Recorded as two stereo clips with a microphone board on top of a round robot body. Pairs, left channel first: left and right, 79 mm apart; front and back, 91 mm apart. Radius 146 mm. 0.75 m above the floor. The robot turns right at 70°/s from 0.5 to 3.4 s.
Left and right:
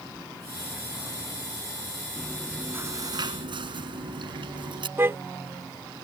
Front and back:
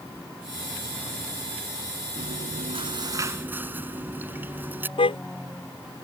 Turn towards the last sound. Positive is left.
turn(degrees=-30)